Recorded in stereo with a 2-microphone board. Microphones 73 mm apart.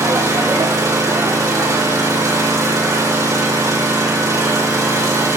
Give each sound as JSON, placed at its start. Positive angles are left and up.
{"t": 0.0, "sound": "an engine running", "side_deg": -50, "distance_m": 5.5}